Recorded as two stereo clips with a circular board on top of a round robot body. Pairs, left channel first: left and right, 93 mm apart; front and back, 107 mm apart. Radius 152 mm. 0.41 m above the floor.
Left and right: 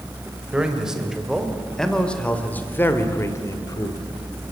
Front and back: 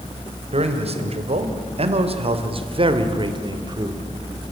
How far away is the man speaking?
About 3 m.